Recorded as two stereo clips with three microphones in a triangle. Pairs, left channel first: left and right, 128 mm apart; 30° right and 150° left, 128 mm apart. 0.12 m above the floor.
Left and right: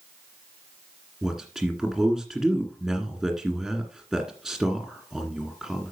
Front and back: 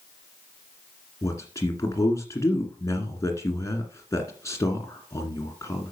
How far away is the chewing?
No chewing in this recording.